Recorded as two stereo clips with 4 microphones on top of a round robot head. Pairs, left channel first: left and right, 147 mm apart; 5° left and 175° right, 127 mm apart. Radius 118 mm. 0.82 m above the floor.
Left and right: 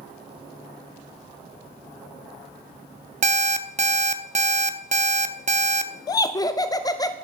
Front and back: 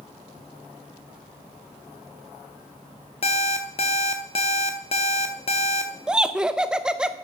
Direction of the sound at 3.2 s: 50° right.